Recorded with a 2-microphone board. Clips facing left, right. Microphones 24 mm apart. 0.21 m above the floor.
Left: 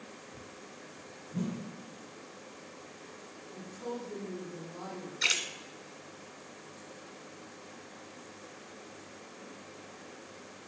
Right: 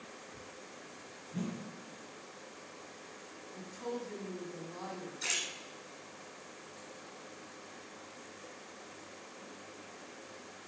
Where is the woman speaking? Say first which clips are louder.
Left 1 dB; 30° right (ahead or behind), 1.5 m.